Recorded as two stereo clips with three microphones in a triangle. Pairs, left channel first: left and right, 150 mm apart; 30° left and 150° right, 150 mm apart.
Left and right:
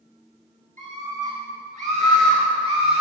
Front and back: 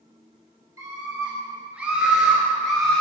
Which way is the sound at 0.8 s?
85° right.